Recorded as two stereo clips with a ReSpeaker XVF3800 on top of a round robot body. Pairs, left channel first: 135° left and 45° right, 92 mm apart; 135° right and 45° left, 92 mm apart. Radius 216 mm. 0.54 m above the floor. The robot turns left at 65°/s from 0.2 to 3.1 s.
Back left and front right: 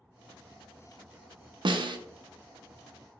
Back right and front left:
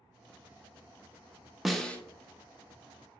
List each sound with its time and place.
1.6 s a snare drum: 40° right, 0.7 m; by 2.0 s 60° right, 0.7 m